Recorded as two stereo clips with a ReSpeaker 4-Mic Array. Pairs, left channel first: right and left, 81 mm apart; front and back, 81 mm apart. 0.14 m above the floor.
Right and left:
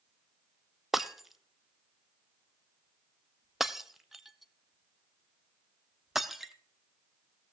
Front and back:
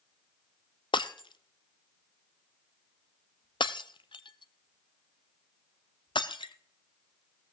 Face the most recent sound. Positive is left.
turn(degrees=5)